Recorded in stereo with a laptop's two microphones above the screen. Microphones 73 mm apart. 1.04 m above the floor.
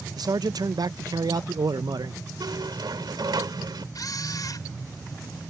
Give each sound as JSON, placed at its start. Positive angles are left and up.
{"t": 0.2, "sound": "a man speaking", "side_deg": -60}
{"t": 2.4, "sound": "a squeak", "side_deg": -75}
{"t": 4.0, "sound": "a camera shutter", "side_deg": 60}